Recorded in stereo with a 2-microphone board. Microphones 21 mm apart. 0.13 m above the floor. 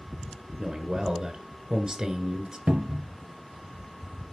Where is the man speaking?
40° right (ahead or behind), 1.6 m.